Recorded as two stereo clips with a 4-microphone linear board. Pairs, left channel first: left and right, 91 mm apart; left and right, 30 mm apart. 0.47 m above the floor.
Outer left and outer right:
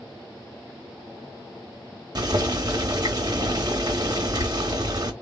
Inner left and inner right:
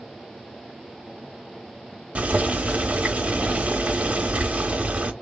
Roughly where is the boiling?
Right.